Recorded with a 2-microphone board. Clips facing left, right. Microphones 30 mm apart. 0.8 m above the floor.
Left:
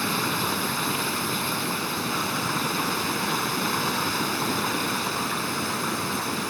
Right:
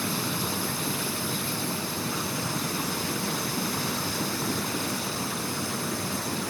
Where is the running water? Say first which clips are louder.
Left 4 dB; 45° left (ahead or behind).